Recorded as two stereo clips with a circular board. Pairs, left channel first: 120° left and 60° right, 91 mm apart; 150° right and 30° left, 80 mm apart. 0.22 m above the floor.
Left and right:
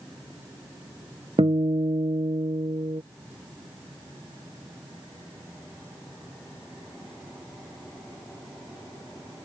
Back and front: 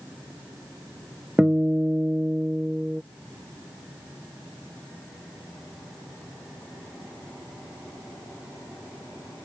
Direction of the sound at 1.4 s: 50° right.